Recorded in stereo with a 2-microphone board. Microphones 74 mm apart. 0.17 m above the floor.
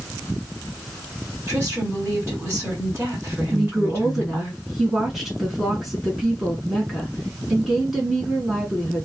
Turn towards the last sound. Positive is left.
turn(degrees=-5)  # may be behind; listen again after turning